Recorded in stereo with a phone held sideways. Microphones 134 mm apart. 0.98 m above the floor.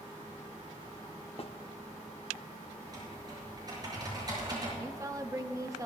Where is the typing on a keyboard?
30° right (ahead or behind), 6.5 m.